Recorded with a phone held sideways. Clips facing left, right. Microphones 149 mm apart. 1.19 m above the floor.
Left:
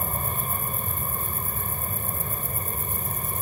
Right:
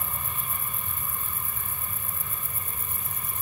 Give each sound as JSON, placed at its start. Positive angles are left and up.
{"t": 0.0, "sound": "an aircraft", "side_deg": 45}